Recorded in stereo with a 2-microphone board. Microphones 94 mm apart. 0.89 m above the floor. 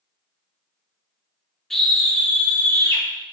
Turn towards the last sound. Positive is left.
turn(degrees=35)  # may be behind; listen again after turning